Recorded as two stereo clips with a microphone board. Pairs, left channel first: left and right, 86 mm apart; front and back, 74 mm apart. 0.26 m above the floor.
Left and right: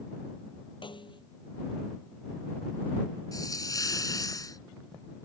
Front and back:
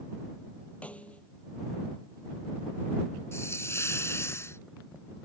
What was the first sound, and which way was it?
A snare drum, 75° left.